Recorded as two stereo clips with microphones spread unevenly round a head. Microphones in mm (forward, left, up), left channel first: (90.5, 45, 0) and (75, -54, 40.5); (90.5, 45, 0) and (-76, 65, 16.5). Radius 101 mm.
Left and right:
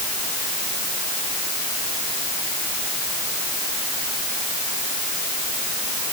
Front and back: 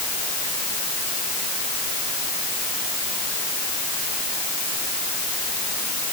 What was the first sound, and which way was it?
Only background noise.